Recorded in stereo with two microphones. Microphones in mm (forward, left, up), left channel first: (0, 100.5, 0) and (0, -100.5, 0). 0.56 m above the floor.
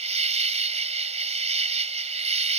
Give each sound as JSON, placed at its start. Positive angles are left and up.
{"t": 0.0, "sound": "an insect", "side_deg": -35}